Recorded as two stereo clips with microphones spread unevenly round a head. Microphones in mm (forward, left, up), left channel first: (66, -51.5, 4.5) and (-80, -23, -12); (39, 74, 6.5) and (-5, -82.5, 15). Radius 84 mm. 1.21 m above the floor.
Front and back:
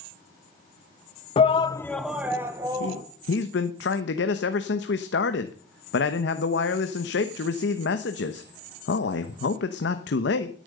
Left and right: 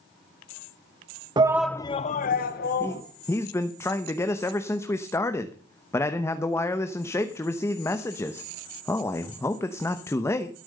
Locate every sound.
1.4 s a shout: 50° right, 0.6 m; by 3.0 s 100° left, 1.6 m
2.8 s a man speaking: straight ahead, 1.0 m